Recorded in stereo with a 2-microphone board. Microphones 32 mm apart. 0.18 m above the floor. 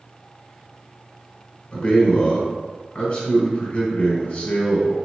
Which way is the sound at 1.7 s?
30° left (ahead or behind).